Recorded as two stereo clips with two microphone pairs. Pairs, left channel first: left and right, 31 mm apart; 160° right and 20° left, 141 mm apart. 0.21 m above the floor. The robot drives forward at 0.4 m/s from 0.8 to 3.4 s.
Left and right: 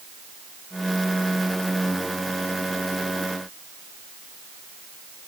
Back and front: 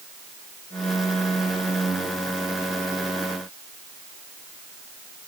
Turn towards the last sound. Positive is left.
No sound to turn to.